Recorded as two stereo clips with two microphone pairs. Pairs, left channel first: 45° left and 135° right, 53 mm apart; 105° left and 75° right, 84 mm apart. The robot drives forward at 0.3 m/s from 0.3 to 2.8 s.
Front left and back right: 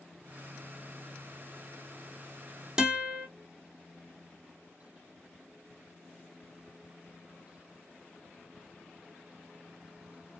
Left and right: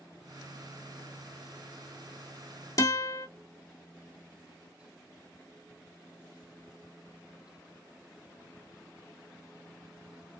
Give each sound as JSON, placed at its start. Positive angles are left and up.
{"t": 2.8, "sound": "a guitar", "azimuth_deg": 150, "distance_m": 1.1}